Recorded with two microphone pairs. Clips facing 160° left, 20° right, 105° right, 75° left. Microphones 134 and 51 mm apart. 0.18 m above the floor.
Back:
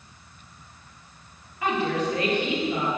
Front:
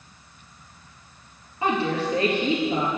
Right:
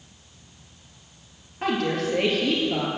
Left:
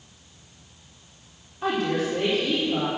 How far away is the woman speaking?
About 3 m.